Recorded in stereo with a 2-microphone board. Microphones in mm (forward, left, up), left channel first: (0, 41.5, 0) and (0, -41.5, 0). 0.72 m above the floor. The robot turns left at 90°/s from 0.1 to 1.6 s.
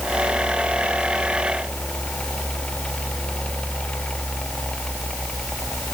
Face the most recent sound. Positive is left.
No sound to turn to.